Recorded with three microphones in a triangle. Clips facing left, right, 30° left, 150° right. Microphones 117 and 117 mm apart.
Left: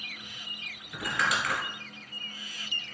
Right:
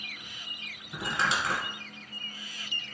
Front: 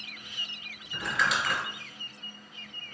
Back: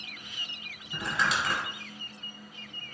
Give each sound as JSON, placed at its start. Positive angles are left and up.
{"t": 0.9, "sound": "crumpling", "azimuth_deg": -120, "distance_m": 1.5}